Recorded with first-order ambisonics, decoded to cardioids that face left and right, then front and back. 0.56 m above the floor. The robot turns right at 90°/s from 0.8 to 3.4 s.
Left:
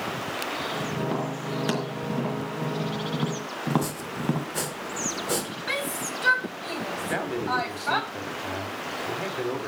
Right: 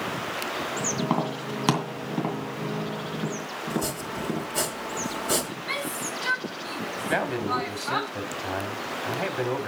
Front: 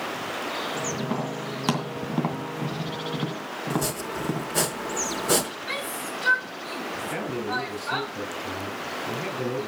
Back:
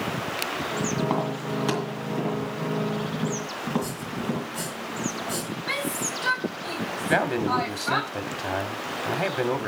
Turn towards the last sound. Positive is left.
turn(degrees=-175)